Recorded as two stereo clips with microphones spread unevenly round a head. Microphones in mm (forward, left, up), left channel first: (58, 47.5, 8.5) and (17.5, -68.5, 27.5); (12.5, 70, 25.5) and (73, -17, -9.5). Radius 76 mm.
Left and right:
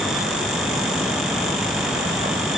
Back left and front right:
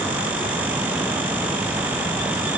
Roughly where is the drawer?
I don't hear a drawer.